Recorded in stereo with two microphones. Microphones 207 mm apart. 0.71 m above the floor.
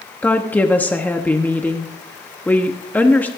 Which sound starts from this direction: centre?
A woman speaking, at 0.2 s.